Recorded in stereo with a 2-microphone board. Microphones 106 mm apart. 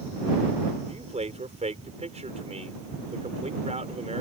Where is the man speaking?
75° right (ahead or behind).